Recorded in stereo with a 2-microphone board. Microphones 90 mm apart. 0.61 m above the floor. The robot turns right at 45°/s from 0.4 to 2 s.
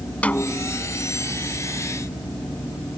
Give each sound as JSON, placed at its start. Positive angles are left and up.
{"t": 0.2, "sound": "a snare drum", "side_deg": 15}